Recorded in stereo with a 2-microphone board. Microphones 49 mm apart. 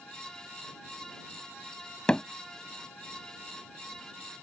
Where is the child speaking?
I don't hear a child speaking.